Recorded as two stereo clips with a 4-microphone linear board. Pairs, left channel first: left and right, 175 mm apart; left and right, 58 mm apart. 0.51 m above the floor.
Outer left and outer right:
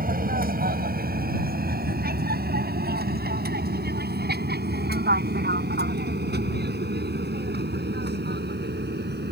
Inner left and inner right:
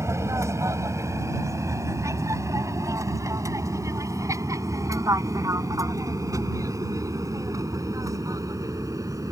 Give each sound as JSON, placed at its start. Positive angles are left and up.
{"t": 0.0, "sound": "an aircraft", "side_deg": -50}